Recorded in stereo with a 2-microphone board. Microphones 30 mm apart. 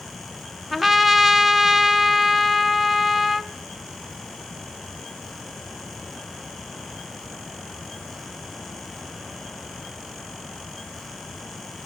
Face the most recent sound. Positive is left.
turn(degrees=-10)  # may be behind; listen again after turning